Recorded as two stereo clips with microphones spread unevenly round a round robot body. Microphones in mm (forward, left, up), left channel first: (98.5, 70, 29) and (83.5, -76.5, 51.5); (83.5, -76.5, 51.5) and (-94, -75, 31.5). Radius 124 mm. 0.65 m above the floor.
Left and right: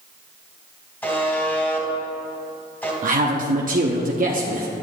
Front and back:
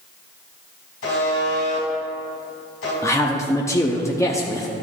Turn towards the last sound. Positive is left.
turn(degrees=-75)